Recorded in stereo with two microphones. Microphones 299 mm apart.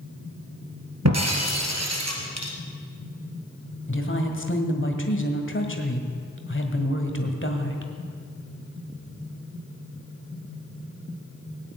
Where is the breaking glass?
60° right (ahead or behind), 2 m.